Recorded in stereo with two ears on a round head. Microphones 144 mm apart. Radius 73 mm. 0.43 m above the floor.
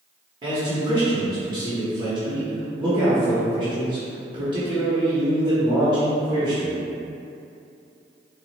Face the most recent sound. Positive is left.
turn(degrees=-25)  # may be behind; listen again after turning